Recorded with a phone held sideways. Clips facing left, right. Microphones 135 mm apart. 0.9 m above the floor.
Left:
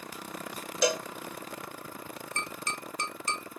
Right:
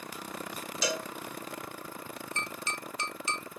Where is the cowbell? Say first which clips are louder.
Left 6 dB; 55° left (ahead or behind), 0.5 m.